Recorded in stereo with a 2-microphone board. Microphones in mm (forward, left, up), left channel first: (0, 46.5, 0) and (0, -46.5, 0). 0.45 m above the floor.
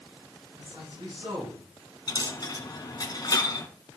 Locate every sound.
0.6 s a man speaking: 65° right (ahead or behind), 4.5 m
2.1 s a dropped coin: 45° left (ahead or behind), 1.6 m